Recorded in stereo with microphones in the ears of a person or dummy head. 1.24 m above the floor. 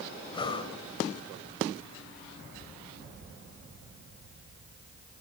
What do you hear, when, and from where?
0.3 s breathing: 30° left (ahead or behind), 2.5 m